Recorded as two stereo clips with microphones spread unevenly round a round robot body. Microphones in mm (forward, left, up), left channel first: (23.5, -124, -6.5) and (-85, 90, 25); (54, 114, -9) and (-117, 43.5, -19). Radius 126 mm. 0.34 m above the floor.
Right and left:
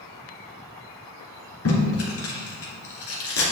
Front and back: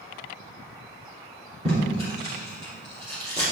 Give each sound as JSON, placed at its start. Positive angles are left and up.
{"t": 1.6, "sound": "tape being pulled", "azimuth_deg": -90, "distance_m": 2.5}